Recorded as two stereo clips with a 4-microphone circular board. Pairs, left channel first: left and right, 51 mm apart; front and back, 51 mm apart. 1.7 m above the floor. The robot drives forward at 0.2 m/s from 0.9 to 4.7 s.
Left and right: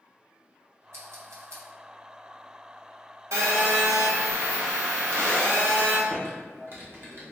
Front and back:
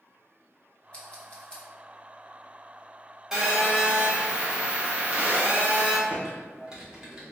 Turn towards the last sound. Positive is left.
turn(degrees=-110)